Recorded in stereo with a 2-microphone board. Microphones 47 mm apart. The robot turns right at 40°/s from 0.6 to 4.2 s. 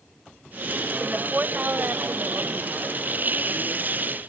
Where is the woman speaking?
160° right; by 2.6 s 100° right.